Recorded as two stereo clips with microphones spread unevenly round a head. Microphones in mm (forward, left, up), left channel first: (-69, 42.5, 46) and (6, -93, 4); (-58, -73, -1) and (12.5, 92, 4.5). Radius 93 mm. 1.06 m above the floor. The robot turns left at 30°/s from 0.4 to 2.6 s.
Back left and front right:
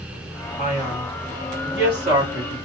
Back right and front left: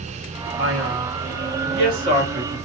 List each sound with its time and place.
0.6 s a man speaking: 60° left, 1.6 m; by 2.5 s straight ahead, 1.6 m